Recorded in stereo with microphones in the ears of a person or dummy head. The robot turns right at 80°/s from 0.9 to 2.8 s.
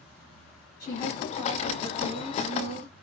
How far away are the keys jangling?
No keys jangling in this recording.